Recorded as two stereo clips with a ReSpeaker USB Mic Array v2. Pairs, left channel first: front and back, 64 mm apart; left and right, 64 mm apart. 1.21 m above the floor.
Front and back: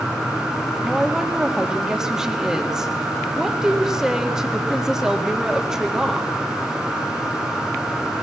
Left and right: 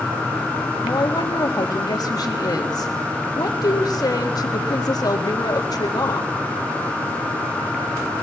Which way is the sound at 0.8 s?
100° left.